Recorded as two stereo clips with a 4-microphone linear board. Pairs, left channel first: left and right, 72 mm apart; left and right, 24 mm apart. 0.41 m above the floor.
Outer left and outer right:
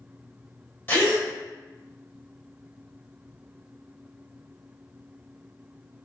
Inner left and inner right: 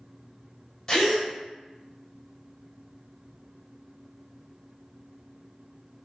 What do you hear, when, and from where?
0.9 s a gasp: 25° left (ahead or behind), 1.2 m